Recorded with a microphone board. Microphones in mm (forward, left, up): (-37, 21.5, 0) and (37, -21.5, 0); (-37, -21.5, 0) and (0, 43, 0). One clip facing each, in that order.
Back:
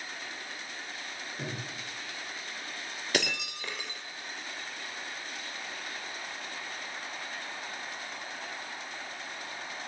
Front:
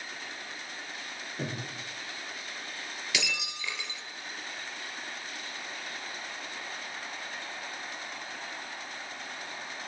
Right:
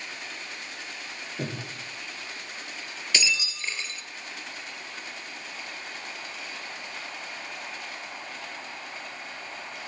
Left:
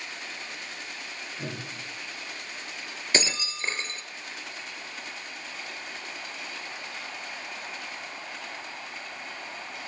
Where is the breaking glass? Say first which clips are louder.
Back 5 dB, left 1 dB; 110° left, 2.5 m.